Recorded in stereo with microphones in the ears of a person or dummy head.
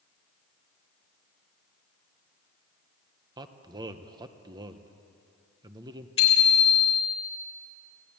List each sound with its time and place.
3.4 s a man speaking: 25° right (ahead or behind), 1.1 m
6.2 s a bicycle bell: 30° left (ahead or behind), 4 m